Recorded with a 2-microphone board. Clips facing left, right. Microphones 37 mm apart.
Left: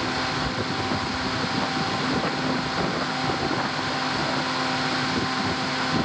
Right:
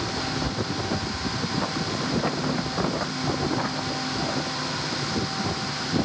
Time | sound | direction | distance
0.2 | whispering | 10° right (ahead or behind) | 1.5 m